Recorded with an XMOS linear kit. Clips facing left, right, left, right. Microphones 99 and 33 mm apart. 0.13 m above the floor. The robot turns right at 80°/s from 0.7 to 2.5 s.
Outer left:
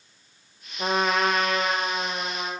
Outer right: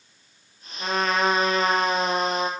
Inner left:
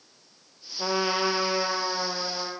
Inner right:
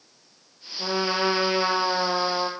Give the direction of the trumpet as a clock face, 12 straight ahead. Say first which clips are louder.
Even, inner right 1 dB; 7 o'clock.